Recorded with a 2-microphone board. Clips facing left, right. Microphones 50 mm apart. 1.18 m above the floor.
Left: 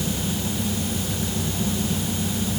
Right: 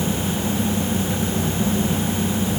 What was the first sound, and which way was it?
Only background noise.